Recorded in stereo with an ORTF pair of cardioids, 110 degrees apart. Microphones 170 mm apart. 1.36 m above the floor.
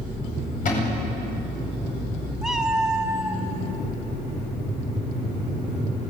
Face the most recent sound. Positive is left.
turn(degrees=-5)